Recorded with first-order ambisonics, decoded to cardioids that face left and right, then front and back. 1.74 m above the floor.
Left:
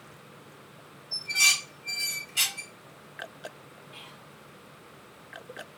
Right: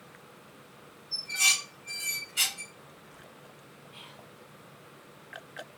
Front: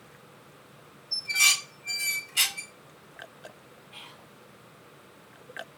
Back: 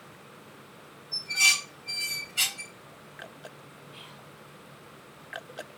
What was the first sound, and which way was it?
Dishes clattering, 20° left.